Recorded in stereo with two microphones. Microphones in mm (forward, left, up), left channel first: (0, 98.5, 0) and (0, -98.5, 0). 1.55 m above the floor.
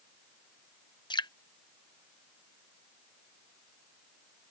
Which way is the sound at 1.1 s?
20° left (ahead or behind).